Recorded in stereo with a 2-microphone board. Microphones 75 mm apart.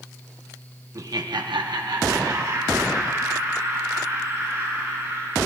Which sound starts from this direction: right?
Laughter, at 0.9 s.